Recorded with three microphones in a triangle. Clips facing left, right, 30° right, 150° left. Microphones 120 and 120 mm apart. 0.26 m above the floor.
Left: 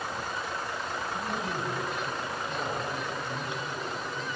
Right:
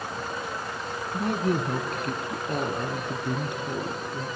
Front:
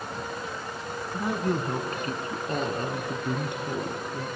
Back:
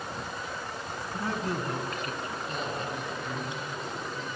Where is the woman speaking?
105° right, 2 m; by 4.3 s 50° right, 4 m.